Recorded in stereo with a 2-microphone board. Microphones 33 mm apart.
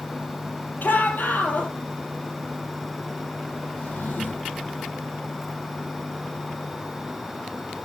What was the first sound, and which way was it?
A shout, 70° left (ahead or behind).